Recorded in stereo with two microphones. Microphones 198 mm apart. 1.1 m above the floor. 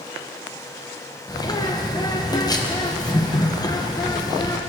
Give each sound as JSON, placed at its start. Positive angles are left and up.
{"t": 1.3, "sound": "a bird", "side_deg": 20, "distance_m": 0.8}